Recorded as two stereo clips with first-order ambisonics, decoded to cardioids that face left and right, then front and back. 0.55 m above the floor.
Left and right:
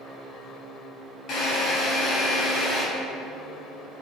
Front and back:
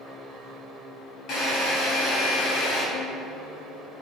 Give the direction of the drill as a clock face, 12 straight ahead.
11 o'clock.